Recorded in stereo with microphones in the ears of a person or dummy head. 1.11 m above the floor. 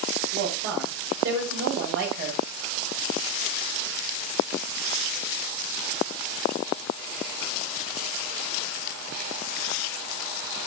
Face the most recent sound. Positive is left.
turn(degrees=-60)  # may be behind; listen again after turning